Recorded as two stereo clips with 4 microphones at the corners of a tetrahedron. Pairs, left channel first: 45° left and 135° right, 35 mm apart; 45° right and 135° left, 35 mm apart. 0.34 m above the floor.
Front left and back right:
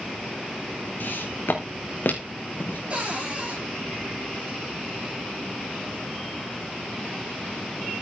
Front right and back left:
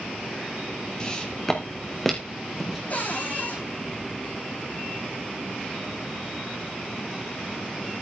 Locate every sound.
1.0 s footsteps: 25° left, 3 m; by 2.8 s 55° left, 4.5 m
2.9 s a cupboard door: 85° right, 7 m